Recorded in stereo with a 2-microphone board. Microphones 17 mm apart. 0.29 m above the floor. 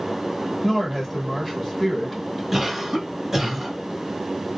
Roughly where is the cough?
Centre.